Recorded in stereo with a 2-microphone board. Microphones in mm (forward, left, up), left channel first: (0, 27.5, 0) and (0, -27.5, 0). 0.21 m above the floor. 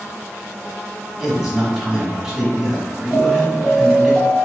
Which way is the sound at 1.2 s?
5° right (ahead or behind).